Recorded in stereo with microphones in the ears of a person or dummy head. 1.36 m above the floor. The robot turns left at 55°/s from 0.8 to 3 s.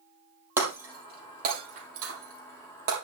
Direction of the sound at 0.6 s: 15° right (ahead or behind).